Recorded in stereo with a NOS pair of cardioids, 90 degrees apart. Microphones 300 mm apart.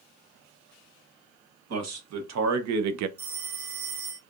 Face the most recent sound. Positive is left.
turn(degrees=-65)